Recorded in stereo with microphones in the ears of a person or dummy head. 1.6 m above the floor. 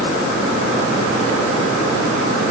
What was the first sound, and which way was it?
Only background noise.